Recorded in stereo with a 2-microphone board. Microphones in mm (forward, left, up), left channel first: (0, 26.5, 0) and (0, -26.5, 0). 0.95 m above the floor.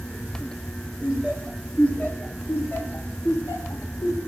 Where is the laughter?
Centre (ahead or behind), 1.7 m; by 4.2 s 85° left, 2.5 m.